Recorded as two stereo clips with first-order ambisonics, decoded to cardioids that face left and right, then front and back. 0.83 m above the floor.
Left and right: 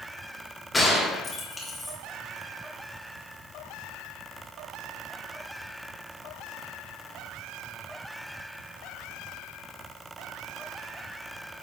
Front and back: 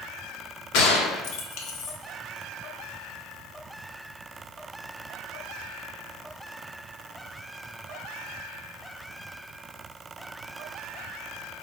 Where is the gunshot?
10° left, 1.4 m.